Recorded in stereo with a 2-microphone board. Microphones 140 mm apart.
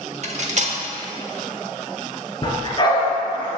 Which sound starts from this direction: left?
A dog barking, at 2.4 s.